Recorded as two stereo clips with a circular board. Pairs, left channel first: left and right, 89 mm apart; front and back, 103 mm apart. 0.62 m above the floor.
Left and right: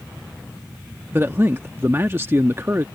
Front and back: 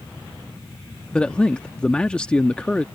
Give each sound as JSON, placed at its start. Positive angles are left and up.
{"t": 1.1, "sound": "a man speaking", "azimuth_deg": -70}